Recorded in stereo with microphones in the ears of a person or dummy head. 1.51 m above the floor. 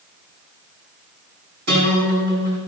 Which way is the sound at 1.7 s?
65° right (ahead or behind).